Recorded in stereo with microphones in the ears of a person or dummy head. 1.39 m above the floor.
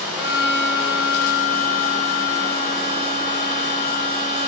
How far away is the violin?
About 2.5 m.